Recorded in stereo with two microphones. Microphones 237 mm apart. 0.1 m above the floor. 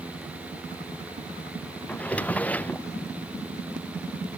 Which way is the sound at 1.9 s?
5° left (ahead or behind).